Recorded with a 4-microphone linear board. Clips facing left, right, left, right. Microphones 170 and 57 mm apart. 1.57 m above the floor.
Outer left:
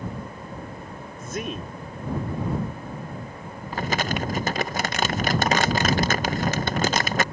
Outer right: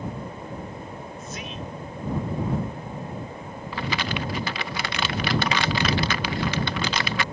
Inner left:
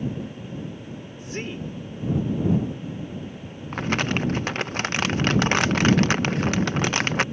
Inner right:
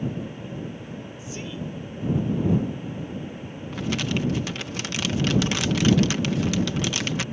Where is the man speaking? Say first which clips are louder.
Outer left 8 dB, inner left 4 dB; 55° left (ahead or behind).